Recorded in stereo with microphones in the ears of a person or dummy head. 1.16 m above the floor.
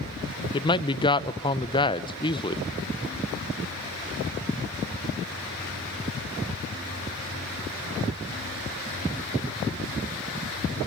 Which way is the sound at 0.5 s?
20° left (ahead or behind).